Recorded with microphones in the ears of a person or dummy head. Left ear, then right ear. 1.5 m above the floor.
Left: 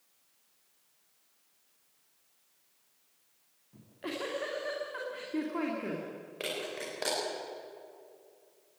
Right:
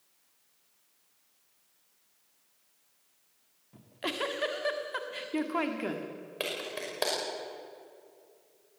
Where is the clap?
35° right (ahead or behind), 6 m.